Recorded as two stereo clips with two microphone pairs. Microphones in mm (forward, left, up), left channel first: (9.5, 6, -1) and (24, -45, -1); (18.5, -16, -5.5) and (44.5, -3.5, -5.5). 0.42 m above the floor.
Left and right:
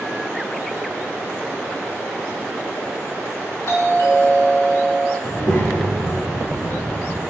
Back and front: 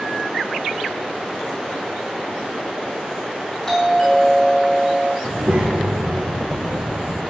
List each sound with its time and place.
3.7 s a doorbell: 135° left, 7 m
5.2 s a child speaking: 85° left, 6 m